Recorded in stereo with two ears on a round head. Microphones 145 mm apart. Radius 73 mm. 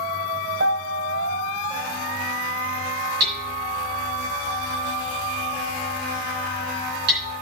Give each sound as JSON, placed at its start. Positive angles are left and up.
{"t": 0.6, "sound": "a piano", "side_deg": -65, "distance_m": 1.6}
{"t": 3.2, "sound": "hammering", "side_deg": -70, "distance_m": 3.0}